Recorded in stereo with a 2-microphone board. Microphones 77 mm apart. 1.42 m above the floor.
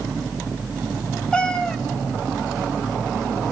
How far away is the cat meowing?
About 1.3 m.